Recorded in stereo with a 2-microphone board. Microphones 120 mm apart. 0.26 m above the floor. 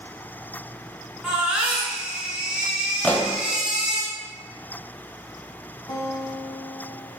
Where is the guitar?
30° left (ahead or behind), 0.8 m.